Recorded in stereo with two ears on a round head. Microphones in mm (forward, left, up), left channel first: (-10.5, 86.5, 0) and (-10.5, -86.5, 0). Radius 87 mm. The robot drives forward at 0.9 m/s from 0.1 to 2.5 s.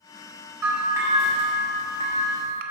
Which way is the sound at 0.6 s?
10° right (ahead or behind).